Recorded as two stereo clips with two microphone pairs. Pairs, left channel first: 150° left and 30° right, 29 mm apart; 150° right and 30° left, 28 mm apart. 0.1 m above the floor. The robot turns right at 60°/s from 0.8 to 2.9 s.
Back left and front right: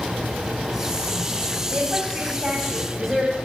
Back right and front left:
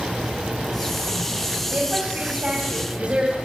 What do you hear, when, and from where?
1.7 s a woman speaking: 5° left, 5 m; by 3.4 s 75° left, 5 m